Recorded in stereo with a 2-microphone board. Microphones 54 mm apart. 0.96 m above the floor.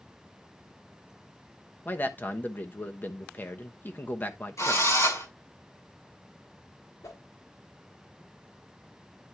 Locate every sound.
1.9 s a man speaking: 35° left (ahead or behind), 1.0 m
4.6 s a drill: 70° left (ahead or behind), 5 m
7.0 s a whoosh: 90° left, 1.5 m